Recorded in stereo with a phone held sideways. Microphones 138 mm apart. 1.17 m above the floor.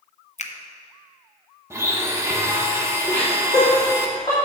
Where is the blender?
20° right (ahead or behind), 1.1 m.